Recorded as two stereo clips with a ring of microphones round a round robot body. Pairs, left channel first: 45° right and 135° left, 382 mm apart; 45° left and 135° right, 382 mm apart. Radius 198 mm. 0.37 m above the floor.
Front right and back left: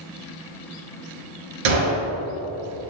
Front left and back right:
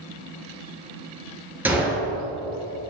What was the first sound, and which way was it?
A gunshot, 140° left.